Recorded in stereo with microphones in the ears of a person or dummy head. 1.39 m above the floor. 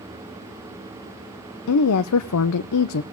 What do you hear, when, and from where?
1.7 s a woman speaking: 85° left, 0.6 m